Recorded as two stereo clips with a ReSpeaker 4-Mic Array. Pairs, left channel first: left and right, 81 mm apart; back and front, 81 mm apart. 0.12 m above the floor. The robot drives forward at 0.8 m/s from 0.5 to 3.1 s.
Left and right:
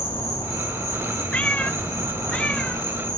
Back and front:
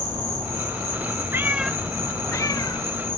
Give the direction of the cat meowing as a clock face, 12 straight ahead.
11 o'clock.